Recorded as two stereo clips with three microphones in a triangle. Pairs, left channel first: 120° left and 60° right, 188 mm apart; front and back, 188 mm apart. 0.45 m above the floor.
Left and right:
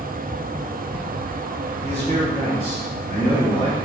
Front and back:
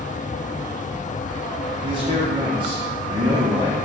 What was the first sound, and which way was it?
A man speaking, 110° right.